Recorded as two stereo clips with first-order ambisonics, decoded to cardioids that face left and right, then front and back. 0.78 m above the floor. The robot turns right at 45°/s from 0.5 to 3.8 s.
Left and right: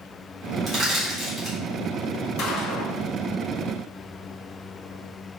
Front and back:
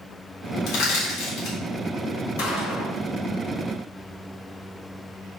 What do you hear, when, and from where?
0.7 s crushing: 30° right, 1.9 m; by 1.6 s 10° left, 1.9 m
2.4 s a gunshot: 30° left, 1.9 m; by 3.0 s 55° left, 1.9 m